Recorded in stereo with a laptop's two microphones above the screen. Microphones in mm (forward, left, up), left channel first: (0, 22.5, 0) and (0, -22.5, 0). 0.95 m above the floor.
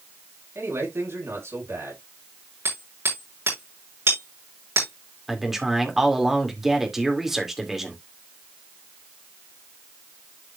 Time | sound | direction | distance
0.6 | a man speaking | 75° right (ahead or behind) | 7 m
2.6 | hammering | 60° right (ahead or behind) | 6 m
5.3 | a man speaking | 5° right (ahead or behind) | 2 m